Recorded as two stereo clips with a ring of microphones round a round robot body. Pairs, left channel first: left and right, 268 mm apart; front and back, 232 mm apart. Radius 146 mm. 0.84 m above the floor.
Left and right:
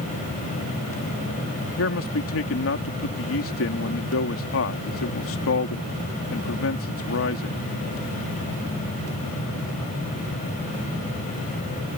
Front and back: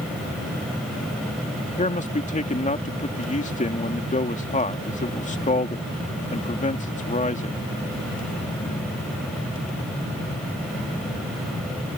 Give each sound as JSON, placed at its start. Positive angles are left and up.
{"t": 1.8, "sound": "a man speaking", "azimuth_deg": 55}